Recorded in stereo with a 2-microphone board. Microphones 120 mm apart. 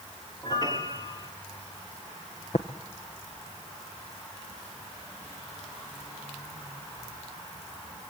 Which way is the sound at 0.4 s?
35° left (ahead or behind).